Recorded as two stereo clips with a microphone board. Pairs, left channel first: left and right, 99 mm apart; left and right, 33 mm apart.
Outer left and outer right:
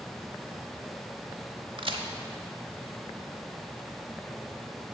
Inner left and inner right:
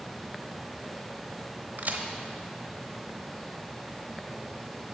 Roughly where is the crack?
Right.